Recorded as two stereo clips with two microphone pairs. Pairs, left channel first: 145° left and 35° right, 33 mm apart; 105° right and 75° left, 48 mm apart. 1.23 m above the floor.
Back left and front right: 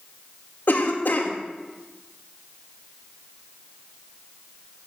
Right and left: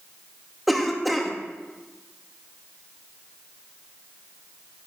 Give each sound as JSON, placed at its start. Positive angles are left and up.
{"t": 0.7, "sound": "a cough", "azimuth_deg": 165, "distance_m": 2.5}